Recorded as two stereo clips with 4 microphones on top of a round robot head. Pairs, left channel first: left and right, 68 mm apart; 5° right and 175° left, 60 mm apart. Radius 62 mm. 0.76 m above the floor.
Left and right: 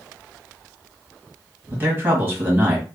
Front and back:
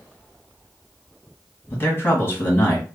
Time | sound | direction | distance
1.7 | a man speaking | 45° right | 1.5 m